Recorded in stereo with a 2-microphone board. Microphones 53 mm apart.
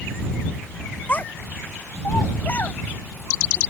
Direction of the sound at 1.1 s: 30° left (ahead or behind).